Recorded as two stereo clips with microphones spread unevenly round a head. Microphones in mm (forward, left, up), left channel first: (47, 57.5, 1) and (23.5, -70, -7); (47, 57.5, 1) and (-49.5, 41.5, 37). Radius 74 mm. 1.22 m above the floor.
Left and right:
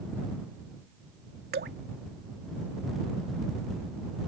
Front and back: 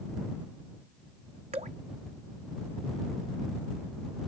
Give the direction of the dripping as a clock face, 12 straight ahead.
4 o'clock.